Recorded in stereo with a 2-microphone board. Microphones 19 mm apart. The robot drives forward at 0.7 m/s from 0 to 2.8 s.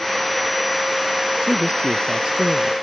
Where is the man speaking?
65° right (ahead or behind); by 2.7 s 60° right (ahead or behind).